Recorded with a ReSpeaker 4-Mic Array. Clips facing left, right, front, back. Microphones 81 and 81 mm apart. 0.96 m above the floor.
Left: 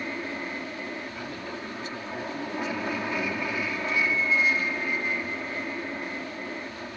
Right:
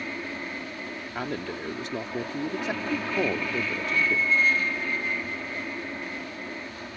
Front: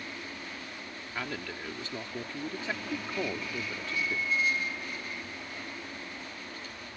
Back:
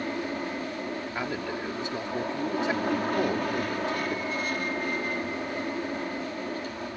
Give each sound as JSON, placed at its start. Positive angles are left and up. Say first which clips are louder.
{"t": 0.0, "sound": "an aircraft", "louder": "left 1 dB, back 11 dB", "azimuth_deg": 165}
{"t": 1.1, "sound": "a man speaking", "louder": "right 4 dB, back 3 dB", "azimuth_deg": -110}